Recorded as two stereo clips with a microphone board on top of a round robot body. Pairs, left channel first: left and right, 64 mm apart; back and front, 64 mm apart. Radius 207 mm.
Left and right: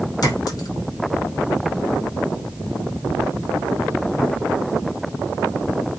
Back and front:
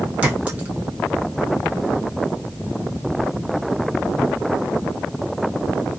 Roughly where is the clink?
Left.